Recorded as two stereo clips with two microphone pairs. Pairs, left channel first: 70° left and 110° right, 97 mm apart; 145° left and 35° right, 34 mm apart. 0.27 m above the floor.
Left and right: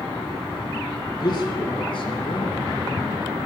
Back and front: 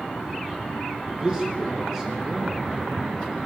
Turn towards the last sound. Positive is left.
turn(degrees=45)